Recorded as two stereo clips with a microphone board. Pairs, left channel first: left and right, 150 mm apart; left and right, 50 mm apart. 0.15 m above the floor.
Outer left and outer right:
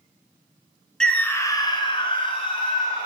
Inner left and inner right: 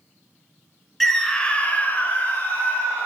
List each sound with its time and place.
1.0 s a scream: 5° left (ahead or behind), 1.4 m; by 3.1 s 35° left (ahead or behind), 2.5 m